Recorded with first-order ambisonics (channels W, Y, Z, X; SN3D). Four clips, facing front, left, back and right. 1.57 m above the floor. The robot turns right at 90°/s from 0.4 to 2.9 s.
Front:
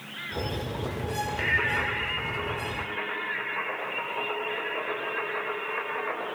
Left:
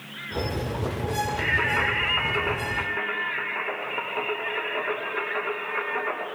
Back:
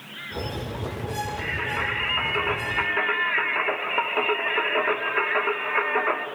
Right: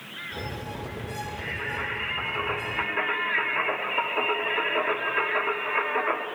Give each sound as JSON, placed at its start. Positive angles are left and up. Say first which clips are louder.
{"t": 1.4, "sound": "singing", "louder": "left 8 dB, front 3 dB", "azimuth_deg": 45, "distance_m": 1.5}